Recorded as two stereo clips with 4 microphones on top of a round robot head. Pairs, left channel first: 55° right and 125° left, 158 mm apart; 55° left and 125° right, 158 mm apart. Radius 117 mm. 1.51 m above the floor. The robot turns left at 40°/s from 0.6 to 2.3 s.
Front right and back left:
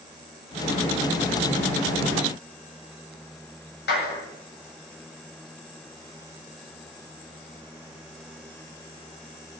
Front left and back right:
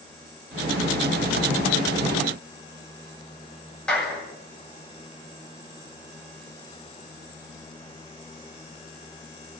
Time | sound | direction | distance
3.9 | a clap | 30° right | 8.5 m